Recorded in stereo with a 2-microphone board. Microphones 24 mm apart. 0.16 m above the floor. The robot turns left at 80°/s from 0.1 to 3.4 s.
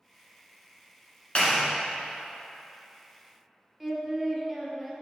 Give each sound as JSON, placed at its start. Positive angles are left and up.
{"t": 1.4, "sound": "a clap", "side_deg": 45, "distance_m": 1.6}
{"t": 3.8, "sound": "singing", "side_deg": -5, "distance_m": 0.9}